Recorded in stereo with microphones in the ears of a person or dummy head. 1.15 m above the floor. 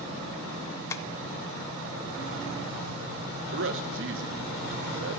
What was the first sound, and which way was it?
Tapping, 20° left (ahead or behind).